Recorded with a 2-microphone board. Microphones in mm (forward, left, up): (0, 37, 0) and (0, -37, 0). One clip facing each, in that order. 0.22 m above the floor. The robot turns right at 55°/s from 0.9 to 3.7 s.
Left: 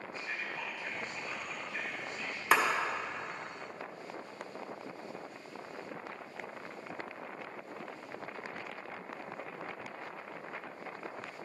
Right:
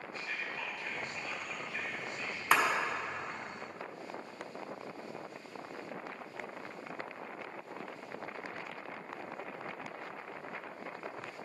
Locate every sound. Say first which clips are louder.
0.1 s whispering: even; 20° left (ahead or behind), 1.5 m; by 2.4 s 5° right (ahead or behind), 1.5 m
2.5 s a clap: left 1 dB; 10° left (ahead or behind), 1.2 m; by 2.6 s 5° left (ahead or behind), 1.2 m